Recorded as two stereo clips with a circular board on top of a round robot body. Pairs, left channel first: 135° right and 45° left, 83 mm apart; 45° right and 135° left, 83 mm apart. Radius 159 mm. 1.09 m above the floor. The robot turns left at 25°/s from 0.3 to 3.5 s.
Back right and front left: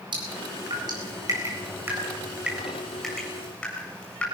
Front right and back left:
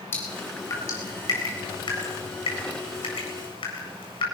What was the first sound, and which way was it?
Dripping, 25° left.